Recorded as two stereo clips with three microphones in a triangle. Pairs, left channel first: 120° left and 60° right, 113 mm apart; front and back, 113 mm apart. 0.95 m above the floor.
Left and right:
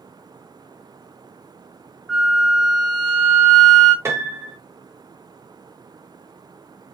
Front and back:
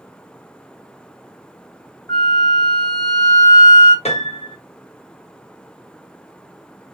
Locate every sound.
2.1 s a flute: 35° left, 1.2 m
4.0 s a piano: 5° left, 0.9 m